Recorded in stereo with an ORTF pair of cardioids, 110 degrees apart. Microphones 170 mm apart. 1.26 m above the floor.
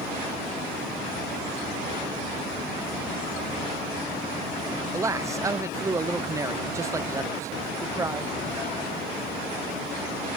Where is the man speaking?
20° right.